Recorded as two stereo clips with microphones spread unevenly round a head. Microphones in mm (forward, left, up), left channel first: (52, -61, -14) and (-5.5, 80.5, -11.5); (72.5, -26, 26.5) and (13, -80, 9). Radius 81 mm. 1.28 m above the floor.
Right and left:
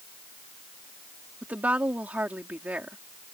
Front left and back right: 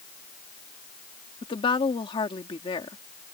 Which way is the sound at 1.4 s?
30° left.